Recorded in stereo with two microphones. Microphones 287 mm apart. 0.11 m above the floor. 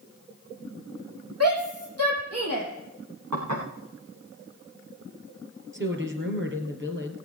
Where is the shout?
55° right (ahead or behind), 5 m.